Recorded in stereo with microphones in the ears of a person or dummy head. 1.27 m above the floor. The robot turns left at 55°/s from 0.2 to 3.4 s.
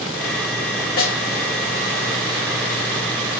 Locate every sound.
1.0 s a snare drum: 35° left (ahead or behind), 0.7 m; by 1.2 s 40° left (ahead or behind), 0.7 m